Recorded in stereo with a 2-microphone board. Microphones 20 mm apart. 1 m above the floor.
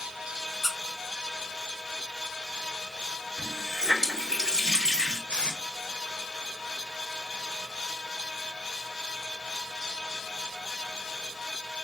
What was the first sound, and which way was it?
A squeak, 15° left (ahead or behind).